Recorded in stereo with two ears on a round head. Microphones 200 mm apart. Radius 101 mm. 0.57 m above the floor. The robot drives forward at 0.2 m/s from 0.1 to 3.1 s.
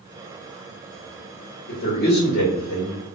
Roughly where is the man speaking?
Left.